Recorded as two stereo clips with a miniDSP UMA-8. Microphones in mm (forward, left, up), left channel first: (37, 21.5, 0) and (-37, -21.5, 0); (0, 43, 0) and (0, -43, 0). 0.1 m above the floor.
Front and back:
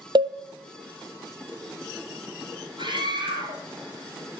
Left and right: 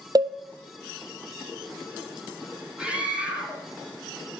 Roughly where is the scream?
Behind.